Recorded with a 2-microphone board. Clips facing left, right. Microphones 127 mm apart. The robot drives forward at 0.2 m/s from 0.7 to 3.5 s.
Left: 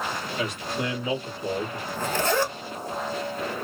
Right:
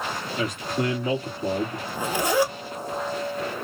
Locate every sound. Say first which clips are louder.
0.4 s a man speaking: right 4 dB; 50° right (ahead or behind), 1.9 m; by 1.8 s 45° right (ahead or behind), 1.9 m
1.9 s a zipper: left 1 dB; 10° right (ahead or behind), 0.8 m